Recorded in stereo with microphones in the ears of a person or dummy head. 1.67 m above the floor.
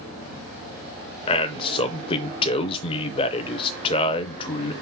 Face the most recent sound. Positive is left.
turn(degrees=30)  # may be behind; listen again after turning